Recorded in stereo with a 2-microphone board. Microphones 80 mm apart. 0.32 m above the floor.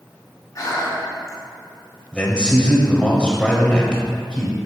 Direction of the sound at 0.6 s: 40° left (ahead or behind).